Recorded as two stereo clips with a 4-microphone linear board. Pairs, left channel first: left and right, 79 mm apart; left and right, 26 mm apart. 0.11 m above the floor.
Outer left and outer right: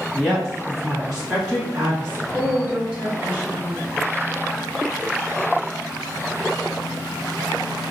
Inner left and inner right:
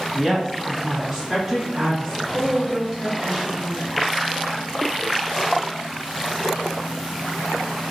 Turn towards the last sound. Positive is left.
turn(degrees=-15)  # may be behind; listen again after turning